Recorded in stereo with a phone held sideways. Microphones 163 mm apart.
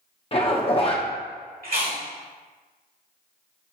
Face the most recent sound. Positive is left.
turn(degrees=-65)  # may be behind; listen again after turning